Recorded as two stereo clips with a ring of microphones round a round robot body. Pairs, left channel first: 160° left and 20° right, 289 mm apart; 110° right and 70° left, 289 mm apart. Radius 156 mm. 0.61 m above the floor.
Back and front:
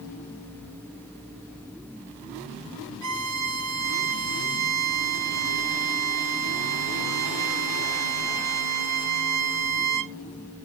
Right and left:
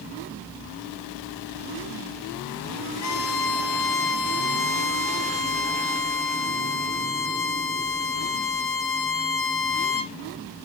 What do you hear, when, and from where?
3.0 s a violin: 65° right, 0.7 m